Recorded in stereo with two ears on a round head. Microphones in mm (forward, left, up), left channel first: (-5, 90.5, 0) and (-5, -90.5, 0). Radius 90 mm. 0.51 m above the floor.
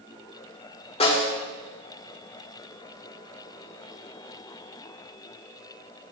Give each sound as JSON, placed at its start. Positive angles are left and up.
{"t": 1.0, "sound": "a snare drum", "side_deg": 30, "distance_m": 1.2}